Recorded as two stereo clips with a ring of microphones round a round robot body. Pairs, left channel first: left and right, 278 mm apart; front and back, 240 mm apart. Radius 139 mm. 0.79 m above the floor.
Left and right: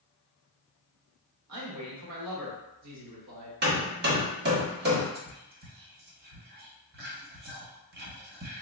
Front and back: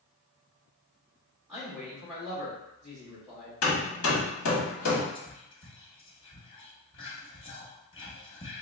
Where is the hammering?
35° right, 1.1 m.